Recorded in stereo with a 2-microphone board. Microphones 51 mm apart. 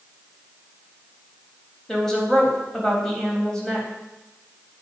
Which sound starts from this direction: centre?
A woman speaking, at 1.9 s.